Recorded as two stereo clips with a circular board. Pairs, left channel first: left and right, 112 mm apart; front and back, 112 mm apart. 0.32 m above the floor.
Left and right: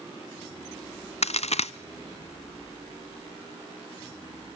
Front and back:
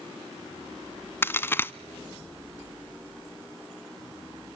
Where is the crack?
70° left, 0.6 m.